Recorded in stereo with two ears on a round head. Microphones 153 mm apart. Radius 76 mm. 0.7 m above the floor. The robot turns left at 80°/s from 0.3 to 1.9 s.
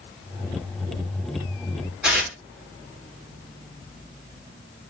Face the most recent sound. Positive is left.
turn(degrees=-5)  # may be behind; listen again after turning